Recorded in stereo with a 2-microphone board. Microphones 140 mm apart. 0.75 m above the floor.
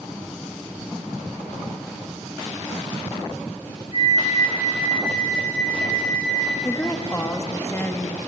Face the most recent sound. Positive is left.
turn(degrees=20)  # may be behind; listen again after turning